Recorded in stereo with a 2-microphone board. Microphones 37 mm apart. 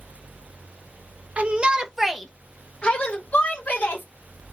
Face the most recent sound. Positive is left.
turn(degrees=50)  # may be behind; listen again after turning